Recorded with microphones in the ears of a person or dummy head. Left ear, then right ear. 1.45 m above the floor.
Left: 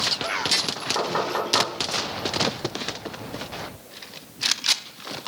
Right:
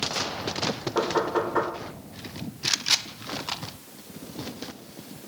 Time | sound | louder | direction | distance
0.9 | knocking | right 2 dB | 30° left (ahead or behind) | 1.5 m